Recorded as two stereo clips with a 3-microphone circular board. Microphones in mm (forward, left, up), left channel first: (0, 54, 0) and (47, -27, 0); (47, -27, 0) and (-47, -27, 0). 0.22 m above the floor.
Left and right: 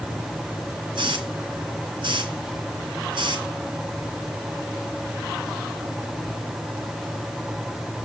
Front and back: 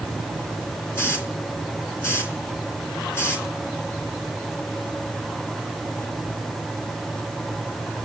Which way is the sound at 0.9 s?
60° right.